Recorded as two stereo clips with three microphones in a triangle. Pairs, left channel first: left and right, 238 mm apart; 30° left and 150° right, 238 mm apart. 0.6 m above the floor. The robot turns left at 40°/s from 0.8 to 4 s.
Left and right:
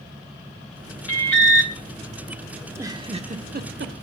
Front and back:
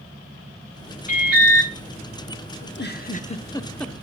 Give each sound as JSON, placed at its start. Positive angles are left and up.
{"t": 1.1, "sound": "an alarm", "azimuth_deg": 80, "distance_m": 1.4}
{"t": 2.6, "sound": "a giggle", "azimuth_deg": -5, "distance_m": 0.8}